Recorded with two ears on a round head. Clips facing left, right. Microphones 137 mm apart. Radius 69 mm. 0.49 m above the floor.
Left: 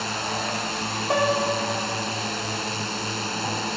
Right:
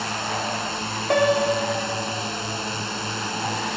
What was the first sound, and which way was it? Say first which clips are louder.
A drone: right 1 dB; 5° left (ahead or behind).